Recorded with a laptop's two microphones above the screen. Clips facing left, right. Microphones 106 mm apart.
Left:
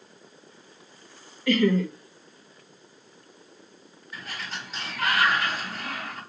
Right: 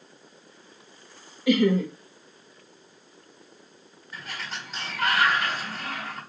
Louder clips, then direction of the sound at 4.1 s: Even; centre (ahead or behind).